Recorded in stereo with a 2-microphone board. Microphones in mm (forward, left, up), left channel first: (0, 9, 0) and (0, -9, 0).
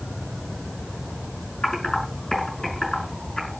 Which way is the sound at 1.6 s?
40° left (ahead or behind).